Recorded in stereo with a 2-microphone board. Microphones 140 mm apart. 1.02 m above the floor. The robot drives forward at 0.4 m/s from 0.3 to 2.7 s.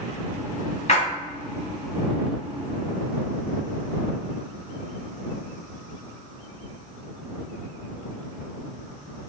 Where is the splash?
50° left (ahead or behind), 1.5 m.